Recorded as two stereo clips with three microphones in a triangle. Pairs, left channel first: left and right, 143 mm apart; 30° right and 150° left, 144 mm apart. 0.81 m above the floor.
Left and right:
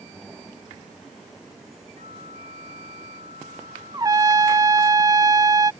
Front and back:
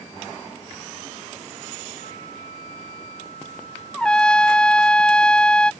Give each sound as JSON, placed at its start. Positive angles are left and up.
{"t": 2.0, "sound": "a flute", "azimuth_deg": -55}
{"t": 3.9, "sound": "a trumpet", "azimuth_deg": -105}